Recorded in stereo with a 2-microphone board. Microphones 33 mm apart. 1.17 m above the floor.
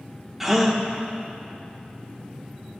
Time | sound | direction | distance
0.4 | a gasp | 5° right (ahead or behind) | 0.9 m